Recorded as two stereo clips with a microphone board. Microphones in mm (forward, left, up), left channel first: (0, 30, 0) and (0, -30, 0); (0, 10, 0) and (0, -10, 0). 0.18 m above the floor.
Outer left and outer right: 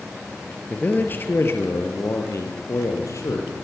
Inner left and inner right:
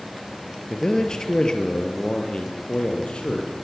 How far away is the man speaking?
About 3 m.